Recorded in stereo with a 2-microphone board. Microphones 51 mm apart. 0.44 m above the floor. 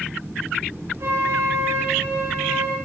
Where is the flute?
60° right (ahead or behind), 7 m.